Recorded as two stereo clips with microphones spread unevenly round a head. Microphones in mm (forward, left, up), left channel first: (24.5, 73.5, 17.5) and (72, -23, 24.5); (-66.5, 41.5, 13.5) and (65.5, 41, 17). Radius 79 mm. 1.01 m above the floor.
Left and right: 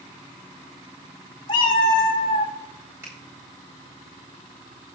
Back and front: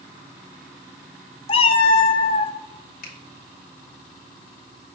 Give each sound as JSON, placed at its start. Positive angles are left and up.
{"t": 1.5, "sound": "a cat meowing", "azimuth_deg": 160, "distance_m": 0.7}
{"t": 3.0, "sound": "a finger snap", "azimuth_deg": -140, "distance_m": 2.5}